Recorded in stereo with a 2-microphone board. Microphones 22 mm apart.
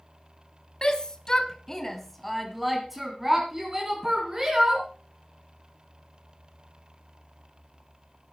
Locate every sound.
0.8 s a shout: 35° left (ahead or behind), 1.6 m; by 4.9 s 30° right (ahead or behind), 3.5 m